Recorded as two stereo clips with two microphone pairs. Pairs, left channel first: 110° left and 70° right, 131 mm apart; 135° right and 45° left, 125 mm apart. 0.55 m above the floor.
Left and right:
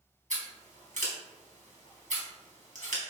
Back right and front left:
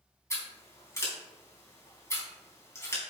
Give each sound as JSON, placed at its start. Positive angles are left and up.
{"t": 0.3, "sound": "scissors", "azimuth_deg": -65, "distance_m": 3.5}